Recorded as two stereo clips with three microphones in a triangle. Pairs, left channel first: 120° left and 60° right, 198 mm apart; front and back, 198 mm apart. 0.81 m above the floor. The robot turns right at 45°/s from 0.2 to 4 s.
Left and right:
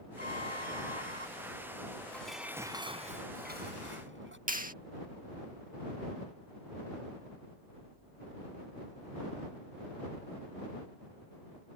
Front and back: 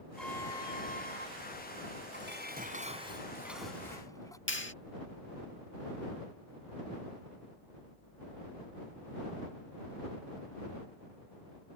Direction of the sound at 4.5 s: 15° right.